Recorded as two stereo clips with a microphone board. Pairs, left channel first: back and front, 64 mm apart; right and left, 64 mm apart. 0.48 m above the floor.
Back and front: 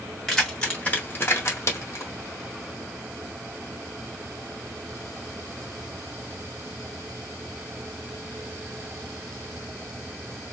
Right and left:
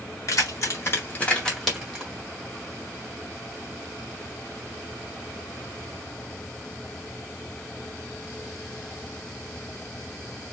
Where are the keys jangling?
100° right, 1.1 m; by 2.1 s 160° left, 1.0 m.